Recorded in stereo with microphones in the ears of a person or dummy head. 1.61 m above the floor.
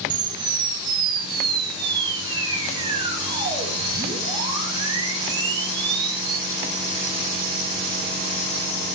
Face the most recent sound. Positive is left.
turn(degrees=-25)  # may be behind; listen again after turning